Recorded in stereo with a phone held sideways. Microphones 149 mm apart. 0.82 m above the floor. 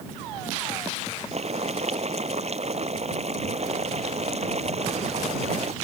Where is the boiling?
50° right (ahead or behind).